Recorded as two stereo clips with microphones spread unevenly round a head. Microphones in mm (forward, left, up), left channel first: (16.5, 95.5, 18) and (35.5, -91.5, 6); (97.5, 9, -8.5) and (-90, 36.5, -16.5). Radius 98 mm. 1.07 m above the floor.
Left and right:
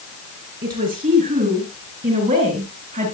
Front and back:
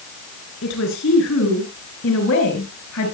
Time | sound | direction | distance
0.6 | a woman speaking | 40° right | 9 m